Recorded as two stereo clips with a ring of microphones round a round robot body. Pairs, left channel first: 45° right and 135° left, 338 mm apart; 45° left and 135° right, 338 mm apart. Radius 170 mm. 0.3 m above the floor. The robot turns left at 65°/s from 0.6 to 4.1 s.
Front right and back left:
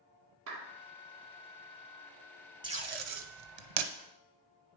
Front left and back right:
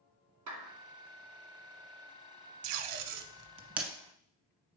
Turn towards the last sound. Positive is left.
turn(degrees=115)